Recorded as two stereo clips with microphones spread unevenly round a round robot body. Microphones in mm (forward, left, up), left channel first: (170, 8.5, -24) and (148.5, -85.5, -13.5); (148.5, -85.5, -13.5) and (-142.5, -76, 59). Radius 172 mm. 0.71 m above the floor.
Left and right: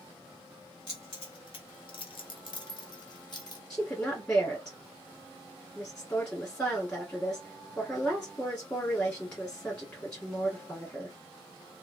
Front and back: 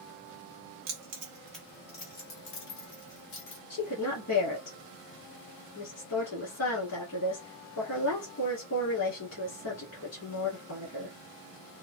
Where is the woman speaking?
15° left, 1.7 m.